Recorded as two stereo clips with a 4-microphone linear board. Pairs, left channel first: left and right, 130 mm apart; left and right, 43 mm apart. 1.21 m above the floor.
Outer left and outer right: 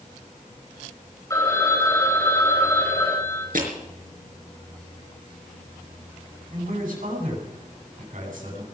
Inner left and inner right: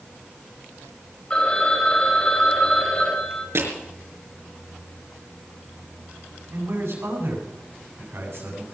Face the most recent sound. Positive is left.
turn(degrees=-70)  # may be behind; listen again after turning